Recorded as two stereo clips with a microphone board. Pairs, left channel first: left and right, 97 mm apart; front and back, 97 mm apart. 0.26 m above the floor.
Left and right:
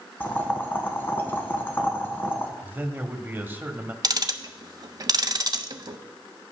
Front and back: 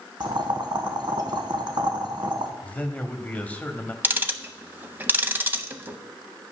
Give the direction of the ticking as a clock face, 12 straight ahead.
4 o'clock.